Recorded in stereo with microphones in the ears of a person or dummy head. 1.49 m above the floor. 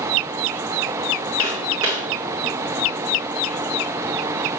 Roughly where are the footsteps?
Centre.